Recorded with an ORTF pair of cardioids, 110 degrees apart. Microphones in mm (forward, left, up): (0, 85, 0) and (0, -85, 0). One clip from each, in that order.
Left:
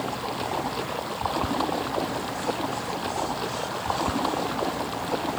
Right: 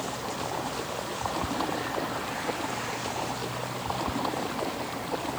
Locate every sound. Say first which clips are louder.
0.0 s running water: left 3 dB; 25° left